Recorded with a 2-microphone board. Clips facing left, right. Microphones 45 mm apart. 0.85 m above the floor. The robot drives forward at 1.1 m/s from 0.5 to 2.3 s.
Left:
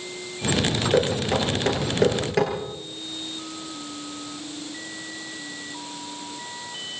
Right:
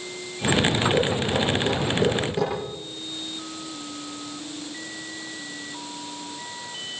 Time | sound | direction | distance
0.9 | knocking | 85° left | 9.5 m